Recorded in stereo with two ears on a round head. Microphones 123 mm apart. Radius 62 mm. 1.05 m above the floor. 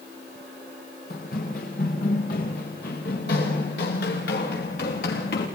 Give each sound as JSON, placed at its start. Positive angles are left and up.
{"t": 1.1, "sound": "running footsteps", "side_deg": 65, "distance_m": 6.0}